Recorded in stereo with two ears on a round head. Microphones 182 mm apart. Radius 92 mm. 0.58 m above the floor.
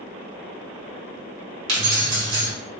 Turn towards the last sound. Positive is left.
turn(degrees=-70)  # may be behind; listen again after turning